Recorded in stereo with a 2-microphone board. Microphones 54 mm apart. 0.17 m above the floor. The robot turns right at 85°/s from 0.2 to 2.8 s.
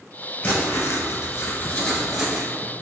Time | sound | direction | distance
0.4 | writing | 40° left | 0.9 m